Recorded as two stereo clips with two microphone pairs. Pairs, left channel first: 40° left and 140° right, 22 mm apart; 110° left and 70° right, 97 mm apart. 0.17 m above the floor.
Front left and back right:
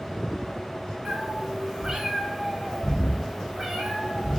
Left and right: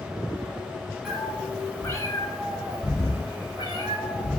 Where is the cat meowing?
155° right, 0.5 m; by 4.4 s 145° left, 2 m.